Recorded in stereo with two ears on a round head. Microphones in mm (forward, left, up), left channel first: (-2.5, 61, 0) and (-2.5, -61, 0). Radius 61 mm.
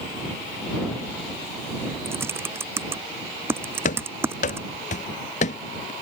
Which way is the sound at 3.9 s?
60° left (ahead or behind).